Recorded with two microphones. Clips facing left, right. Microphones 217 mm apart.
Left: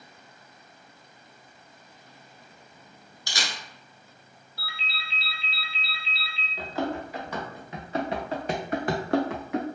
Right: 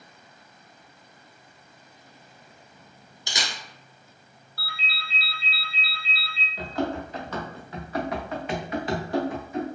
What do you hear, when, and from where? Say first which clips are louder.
3.3 s a camera shutter: right 1 dB; 20° right (ahead or behind), 0.6 m
4.6 s a ringtone: right 2 dB; 20° left (ahead or behind), 1.0 m
6.6 s running footsteps: right 2 dB; 5° left (ahead or behind), 1.4 m; by 9.7 s 85° left, 0.6 m